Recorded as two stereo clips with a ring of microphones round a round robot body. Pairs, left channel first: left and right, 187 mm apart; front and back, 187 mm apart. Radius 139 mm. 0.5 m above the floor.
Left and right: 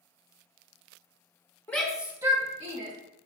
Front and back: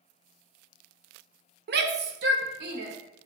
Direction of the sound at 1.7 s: 170° left.